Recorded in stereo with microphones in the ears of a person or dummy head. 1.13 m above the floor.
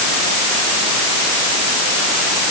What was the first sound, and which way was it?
Only background noise.